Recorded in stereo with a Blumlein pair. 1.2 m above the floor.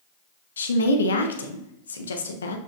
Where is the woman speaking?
70° left, 0.9 m.